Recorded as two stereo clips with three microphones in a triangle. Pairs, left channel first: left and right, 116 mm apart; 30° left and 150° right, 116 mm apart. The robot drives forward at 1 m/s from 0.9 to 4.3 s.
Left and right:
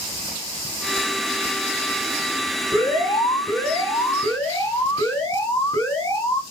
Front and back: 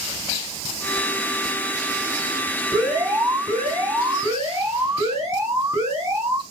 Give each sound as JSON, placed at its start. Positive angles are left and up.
{"t": 2.7, "sound": "an alarm", "azimuth_deg": 140, "distance_m": 5.0}